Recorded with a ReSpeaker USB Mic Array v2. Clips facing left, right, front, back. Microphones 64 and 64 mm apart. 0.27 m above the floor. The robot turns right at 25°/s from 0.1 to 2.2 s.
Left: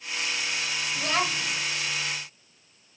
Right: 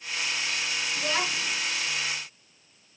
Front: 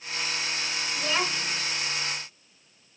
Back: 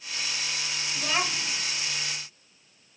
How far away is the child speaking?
About 1.7 m.